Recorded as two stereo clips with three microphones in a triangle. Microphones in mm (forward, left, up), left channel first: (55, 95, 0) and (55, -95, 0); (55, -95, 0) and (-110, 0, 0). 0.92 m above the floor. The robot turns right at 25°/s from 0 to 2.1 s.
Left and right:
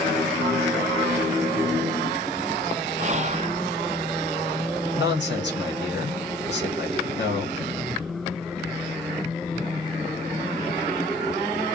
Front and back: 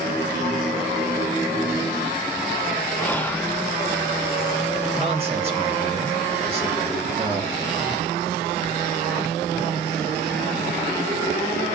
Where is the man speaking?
95° left, 1.6 m.